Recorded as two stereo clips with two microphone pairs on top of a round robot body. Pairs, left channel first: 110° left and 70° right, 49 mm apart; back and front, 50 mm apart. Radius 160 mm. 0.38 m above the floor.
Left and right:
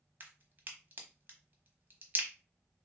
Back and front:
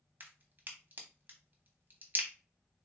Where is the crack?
40° right, 1.1 m.